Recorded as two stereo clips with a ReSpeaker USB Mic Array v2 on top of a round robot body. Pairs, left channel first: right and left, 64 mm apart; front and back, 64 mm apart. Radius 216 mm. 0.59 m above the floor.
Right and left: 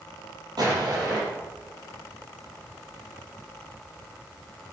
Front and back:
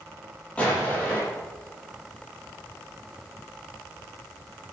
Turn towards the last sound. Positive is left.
turn(degrees=70)